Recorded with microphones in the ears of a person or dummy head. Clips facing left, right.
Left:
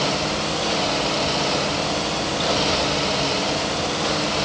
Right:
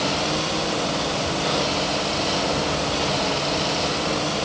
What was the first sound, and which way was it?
Only background noise.